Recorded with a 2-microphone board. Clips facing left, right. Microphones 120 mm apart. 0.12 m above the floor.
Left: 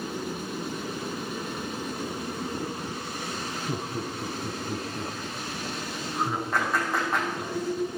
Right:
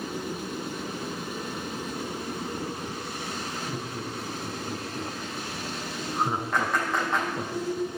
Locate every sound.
3.7 s laughter: 25° left (ahead or behind), 3.5 m; by 7.5 s 45° right (ahead or behind), 2.5 m
6.5 s a clap: 5° left (ahead or behind), 6.5 m